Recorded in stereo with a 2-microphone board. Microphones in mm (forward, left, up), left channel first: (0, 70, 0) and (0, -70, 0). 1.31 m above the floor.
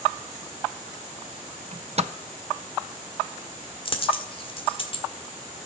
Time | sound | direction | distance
1.7 | a microwave | 50° right (ahead or behind) | 0.6 m
3.9 | a dropped coin | 40° left (ahead or behind) | 1.6 m